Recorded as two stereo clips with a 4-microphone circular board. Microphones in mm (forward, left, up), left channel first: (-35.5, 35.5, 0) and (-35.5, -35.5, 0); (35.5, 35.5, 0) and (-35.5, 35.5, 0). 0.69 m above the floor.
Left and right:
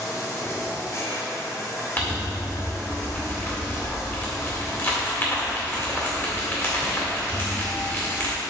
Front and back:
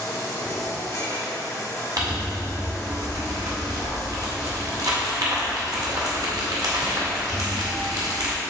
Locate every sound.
0.0 s running water: 45° left, 1.4 m
2.0 s crumpling: 150° left, 1.9 m